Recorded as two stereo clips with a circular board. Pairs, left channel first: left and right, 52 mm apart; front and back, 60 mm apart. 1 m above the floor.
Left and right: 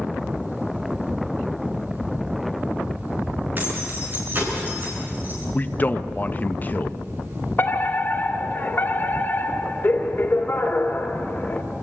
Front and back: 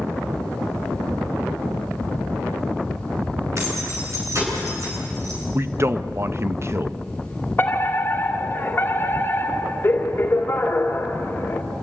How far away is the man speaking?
About 0.9 m.